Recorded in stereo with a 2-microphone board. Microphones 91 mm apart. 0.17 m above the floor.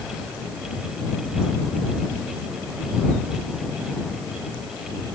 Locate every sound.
Only background noise.